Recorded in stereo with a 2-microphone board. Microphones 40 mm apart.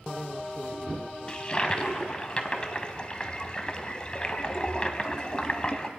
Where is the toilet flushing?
25° left (ahead or behind), 0.8 m.